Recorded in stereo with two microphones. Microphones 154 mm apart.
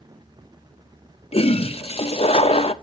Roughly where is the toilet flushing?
Left.